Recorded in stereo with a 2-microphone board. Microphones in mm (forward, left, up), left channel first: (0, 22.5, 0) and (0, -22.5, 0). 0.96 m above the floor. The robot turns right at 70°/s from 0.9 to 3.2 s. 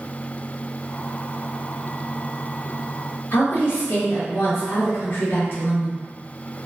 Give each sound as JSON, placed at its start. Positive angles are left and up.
{"t": 3.3, "sound": "a woman speaking", "side_deg": 65, "distance_m": 1.2}